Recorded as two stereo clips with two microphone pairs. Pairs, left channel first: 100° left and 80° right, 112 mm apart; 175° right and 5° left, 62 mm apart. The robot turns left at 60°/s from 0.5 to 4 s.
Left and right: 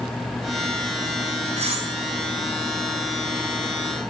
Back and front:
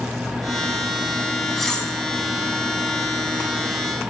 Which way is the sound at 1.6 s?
85° right.